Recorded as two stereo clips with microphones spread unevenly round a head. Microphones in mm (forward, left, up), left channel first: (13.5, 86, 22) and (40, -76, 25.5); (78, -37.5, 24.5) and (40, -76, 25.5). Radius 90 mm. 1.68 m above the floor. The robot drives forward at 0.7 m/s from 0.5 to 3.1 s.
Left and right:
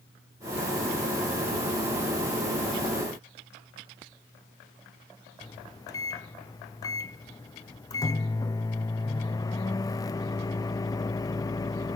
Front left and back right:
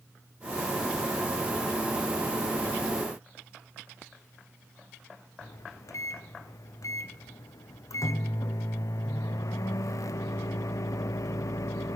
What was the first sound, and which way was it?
A microwave, 30° left.